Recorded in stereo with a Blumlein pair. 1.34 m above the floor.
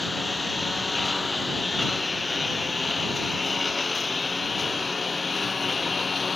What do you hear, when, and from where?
0.0 s a lawn mower: 10° left; by 6.4 s 15° left